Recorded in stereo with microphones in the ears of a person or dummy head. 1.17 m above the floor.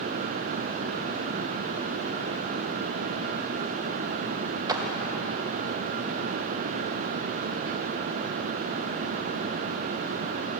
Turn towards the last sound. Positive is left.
turn(degrees=-20)  # may be behind; listen again after turning